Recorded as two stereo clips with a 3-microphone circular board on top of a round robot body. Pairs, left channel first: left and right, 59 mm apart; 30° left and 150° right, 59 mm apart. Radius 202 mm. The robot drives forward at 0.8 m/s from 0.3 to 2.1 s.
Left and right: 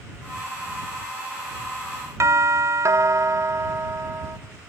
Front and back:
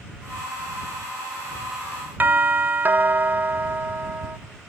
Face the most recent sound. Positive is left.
turn(degrees=-100)